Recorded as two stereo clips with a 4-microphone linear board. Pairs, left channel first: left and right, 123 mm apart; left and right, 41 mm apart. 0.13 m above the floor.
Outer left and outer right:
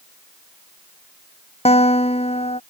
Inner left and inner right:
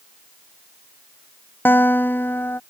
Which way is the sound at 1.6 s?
55° left (ahead or behind).